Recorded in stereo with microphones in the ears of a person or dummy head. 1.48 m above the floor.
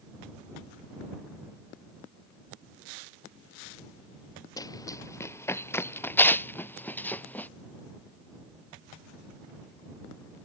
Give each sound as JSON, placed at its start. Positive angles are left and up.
{"t": 4.6, "sound": "running footsteps", "side_deg": 15}